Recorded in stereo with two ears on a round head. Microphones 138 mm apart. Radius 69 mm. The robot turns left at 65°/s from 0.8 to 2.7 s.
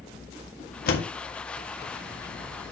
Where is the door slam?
65° left (ahead or behind), 1.7 m; by 1.1 s 70° left (ahead or behind), 1.7 m.